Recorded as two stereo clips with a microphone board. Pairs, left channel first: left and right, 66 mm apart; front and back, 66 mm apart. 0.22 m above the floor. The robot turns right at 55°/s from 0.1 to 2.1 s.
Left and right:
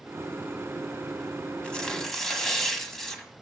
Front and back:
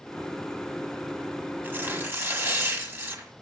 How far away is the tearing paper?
About 1.6 m.